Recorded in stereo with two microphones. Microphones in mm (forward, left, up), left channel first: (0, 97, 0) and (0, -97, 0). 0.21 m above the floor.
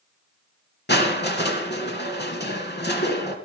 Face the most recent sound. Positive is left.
turn(degrees=60)  # may be behind; listen again after turning